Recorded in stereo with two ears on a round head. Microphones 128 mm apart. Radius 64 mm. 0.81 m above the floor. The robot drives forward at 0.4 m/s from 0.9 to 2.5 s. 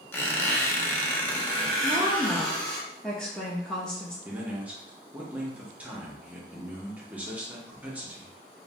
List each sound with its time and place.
0.1 s a squeak: 15° left (ahead or behind), 0.5 m; by 2.8 s 5° left (ahead or behind), 1.1 m
1.8 s a woman speaking: 5° left (ahead or behind), 0.7 m
4.2 s a man speaking: 10° right (ahead or behind), 0.7 m